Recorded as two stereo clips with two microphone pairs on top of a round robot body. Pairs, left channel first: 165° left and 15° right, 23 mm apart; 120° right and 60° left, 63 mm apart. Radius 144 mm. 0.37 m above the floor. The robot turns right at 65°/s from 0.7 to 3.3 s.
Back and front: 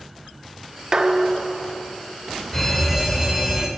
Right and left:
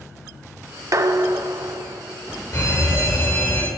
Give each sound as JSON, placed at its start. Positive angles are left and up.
{"t": 0.9, "sound": "dishes clattering", "azimuth_deg": 25, "distance_m": 0.9}
{"t": 2.5, "sound": "a fire alarm", "azimuth_deg": -130, "distance_m": 3.0}